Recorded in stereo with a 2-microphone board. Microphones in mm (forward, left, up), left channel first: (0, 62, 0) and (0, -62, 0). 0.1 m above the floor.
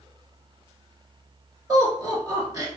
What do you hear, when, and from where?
1.7 s laughter: 30° right (ahead or behind), 1.4 m